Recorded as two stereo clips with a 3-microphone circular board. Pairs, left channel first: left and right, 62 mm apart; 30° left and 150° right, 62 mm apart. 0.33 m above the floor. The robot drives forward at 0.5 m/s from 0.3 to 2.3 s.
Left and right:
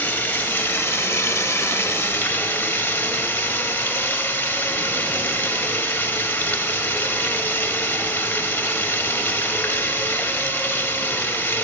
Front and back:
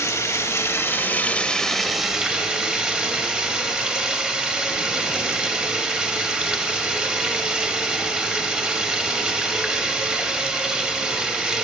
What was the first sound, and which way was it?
Running water, 35° left.